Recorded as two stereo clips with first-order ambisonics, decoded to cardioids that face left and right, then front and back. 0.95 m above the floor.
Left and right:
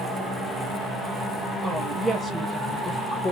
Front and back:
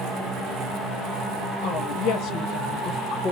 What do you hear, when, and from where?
1.6 s a woman speaking: 20° right, 1.4 m; by 3.3 s 40° left, 1.0 m